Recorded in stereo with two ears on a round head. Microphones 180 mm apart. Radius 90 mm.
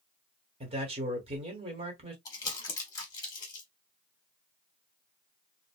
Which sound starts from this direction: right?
A man speaking, at 0.6 s.